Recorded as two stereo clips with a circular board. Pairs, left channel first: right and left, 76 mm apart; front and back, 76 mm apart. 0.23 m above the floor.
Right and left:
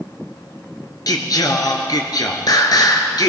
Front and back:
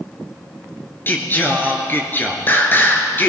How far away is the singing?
About 1.6 m.